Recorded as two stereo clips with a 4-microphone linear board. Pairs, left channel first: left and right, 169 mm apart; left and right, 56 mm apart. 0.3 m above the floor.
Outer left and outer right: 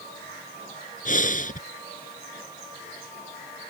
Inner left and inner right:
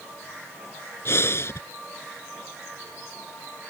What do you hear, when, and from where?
1.1 s breathing: 55° left (ahead or behind)